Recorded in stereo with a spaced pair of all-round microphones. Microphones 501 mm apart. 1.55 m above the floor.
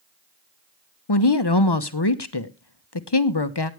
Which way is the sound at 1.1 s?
55° left (ahead or behind).